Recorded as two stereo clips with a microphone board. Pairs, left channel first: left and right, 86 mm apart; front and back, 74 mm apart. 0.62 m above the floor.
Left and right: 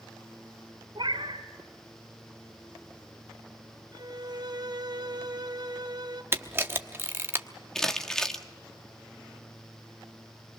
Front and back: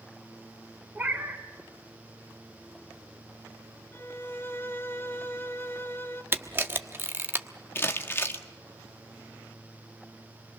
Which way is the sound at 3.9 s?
60° right.